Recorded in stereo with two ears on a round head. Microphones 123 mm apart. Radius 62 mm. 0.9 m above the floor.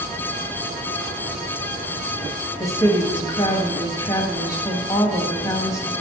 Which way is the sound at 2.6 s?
25° left (ahead or behind).